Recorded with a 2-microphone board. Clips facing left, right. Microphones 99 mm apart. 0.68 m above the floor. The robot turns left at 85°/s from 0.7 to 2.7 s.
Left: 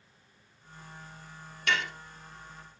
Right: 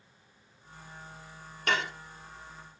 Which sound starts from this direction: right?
Dishes clattering, at 1.7 s.